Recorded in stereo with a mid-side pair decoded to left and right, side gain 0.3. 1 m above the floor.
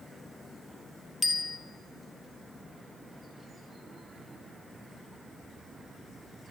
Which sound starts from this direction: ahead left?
A bicycle bell, at 1.2 s.